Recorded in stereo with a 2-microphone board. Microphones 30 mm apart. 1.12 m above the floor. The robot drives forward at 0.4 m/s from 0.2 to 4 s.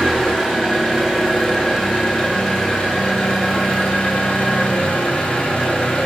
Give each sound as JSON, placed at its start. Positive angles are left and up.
{"t": 0.0, "sound": "an engine running", "side_deg": 25, "distance_m": 2.0}